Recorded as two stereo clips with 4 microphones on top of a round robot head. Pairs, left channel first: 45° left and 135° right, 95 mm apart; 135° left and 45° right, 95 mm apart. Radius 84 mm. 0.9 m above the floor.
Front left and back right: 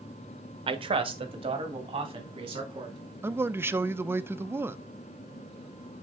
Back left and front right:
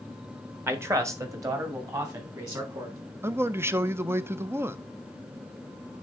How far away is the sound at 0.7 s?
About 1.1 m.